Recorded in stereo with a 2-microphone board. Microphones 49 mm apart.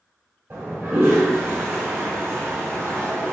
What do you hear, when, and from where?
0.5 s a toilet flushing: 45° right (ahead or behind), 1.9 m